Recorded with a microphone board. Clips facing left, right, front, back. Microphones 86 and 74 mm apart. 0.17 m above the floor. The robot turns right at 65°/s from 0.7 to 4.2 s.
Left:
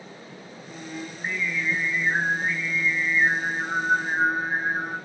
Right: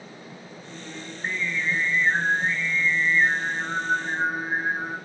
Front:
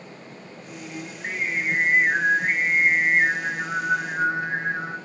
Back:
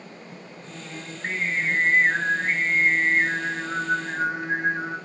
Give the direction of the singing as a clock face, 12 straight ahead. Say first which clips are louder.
Left 3 dB, front 2 dB; 7 o'clock.